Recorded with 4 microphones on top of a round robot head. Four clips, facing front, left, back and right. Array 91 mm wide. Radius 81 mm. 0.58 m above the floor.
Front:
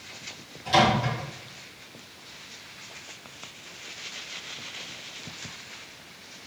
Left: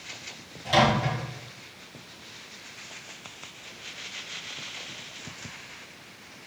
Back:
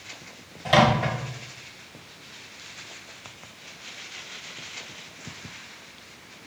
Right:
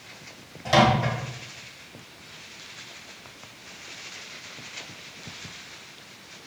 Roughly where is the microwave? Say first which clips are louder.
Right 2 dB, back 2 dB; behind right.